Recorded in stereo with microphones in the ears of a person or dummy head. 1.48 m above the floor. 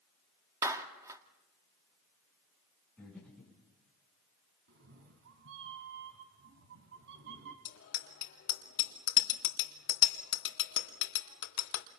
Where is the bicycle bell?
75° left (ahead or behind), 2.5 m.